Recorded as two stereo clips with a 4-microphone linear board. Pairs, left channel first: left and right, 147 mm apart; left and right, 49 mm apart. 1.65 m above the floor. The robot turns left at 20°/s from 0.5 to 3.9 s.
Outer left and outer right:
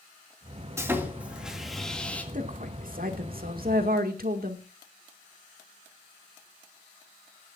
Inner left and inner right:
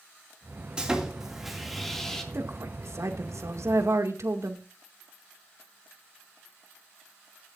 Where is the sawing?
20° right (ahead or behind), 2.5 m; by 2.2 s 10° left (ahead or behind), 2.5 m.